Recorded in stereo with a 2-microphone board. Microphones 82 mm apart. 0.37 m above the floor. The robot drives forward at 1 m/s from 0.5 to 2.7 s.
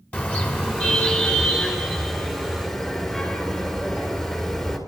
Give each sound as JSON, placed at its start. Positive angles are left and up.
{"t": 0.1, "sound": "a car horn", "side_deg": 20, "distance_m": 2.0}